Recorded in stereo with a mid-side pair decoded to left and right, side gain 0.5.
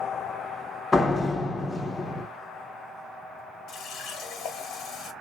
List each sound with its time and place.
0.9 s a door slam: 25° left, 1.2 m
3.7 s a running tap: 60° left, 1.6 m